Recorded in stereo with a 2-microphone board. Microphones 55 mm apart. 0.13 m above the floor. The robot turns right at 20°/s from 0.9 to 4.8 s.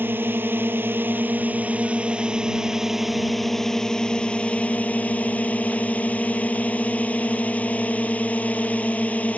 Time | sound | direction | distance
0.0 | a drone | 45° right | ?